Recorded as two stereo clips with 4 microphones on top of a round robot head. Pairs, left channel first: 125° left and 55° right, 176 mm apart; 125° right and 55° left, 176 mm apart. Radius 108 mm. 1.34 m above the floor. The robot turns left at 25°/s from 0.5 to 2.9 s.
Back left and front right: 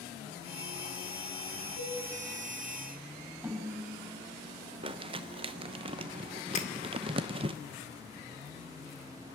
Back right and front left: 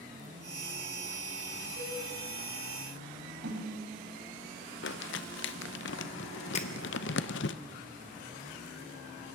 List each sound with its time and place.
1.8 s a cowbell: 165° left, 7.5 m; by 2.0 s 160° left, 7.5 m
3.4 s a snare drum: 30° left, 6 m
4.8 s crumpling: 110° right, 0.6 m
6.5 s breaking glass: straight behind, 2 m